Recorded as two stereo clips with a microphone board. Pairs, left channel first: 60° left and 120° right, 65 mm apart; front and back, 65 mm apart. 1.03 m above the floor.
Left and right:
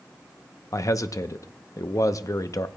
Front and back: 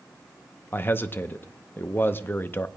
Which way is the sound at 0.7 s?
50° left.